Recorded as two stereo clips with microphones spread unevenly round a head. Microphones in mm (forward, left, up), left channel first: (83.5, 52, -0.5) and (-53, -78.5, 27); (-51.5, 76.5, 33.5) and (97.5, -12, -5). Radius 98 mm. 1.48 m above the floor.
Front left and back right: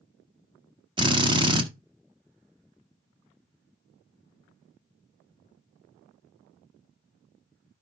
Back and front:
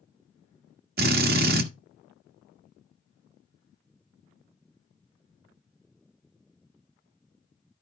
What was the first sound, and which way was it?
A drill, 80° right.